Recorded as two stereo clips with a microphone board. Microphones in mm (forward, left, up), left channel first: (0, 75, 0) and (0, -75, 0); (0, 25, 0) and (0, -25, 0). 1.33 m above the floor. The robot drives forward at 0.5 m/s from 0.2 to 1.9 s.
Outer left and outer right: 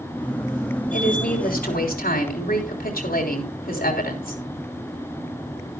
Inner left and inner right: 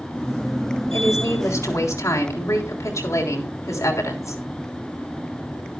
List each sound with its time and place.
0.9 s a woman speaking: 65° left (ahead or behind), 3.5 m; by 4.4 s 75° left (ahead or behind), 3.5 m